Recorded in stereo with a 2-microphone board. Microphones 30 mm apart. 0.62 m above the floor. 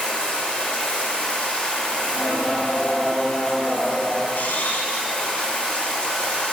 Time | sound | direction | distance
0.0 | running water | 35° left (ahead or behind) | 1.7 m
2.0 | singing | 35° left (ahead or behind) | 3.5 m
4.3 | a camera shutter | 65° left (ahead or behind) | 1.2 m